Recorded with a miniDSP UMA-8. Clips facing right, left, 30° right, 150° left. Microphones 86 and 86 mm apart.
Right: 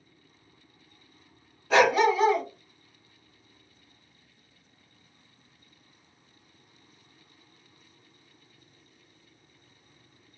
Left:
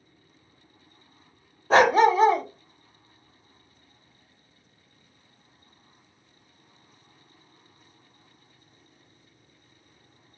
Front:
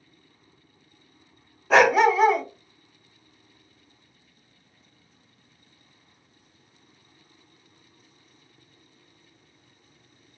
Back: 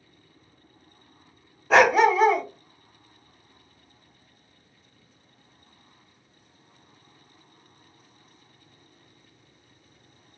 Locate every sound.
1.7 s a dog barking: 60° left, 0.5 m